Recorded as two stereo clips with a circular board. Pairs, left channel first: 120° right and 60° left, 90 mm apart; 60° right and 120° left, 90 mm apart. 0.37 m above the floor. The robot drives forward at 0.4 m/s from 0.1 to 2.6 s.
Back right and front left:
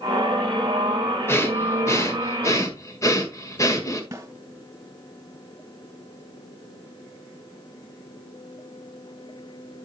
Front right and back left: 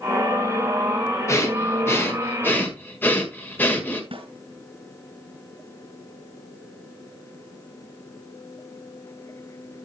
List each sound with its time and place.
1.3 s breathing: 80° right, 1.6 m; by 4.0 s 115° right, 1.6 m
4.1 s a snare drum: 115° left, 3 m